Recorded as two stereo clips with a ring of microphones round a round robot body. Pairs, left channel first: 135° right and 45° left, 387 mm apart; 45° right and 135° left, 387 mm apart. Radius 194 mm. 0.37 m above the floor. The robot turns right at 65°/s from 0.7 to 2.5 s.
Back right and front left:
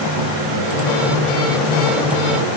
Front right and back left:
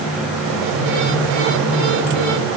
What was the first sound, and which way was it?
Only background noise.